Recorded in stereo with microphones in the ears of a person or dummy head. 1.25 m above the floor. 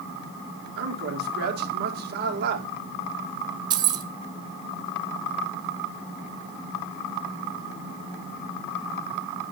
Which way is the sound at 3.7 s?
25° right (ahead or behind).